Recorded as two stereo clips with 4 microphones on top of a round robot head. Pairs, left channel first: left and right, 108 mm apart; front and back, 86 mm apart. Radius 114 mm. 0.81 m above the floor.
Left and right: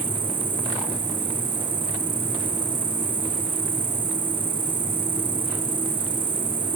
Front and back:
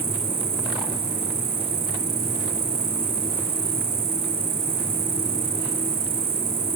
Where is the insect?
145° right.